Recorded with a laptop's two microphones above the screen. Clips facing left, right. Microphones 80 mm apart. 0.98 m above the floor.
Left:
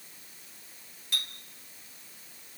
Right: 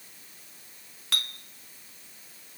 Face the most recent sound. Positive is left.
turn(degrees=-80)